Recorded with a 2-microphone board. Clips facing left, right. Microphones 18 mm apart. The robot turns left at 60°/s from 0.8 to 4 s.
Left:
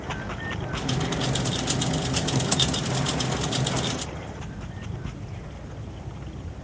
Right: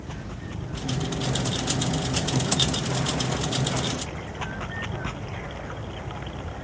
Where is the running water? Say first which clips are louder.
Left 5 dB; 115° left; by 6.7 s 75° right.